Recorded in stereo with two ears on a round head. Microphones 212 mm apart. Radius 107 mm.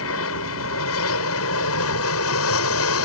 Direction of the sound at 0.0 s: 65° left (ahead or behind).